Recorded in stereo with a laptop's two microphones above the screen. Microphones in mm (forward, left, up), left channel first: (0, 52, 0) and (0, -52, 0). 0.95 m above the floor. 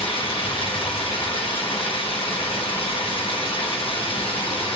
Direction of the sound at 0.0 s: 60° left (ahead or behind).